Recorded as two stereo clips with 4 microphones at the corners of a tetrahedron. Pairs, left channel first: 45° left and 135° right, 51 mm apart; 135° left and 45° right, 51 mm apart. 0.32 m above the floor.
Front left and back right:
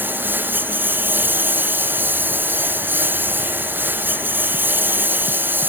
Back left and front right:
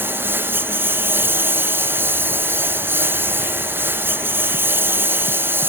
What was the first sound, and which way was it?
A lawn mower, 85° right.